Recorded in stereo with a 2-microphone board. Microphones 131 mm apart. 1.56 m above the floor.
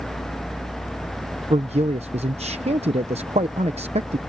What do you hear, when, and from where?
1.5 s a man speaking: 55° right (ahead or behind)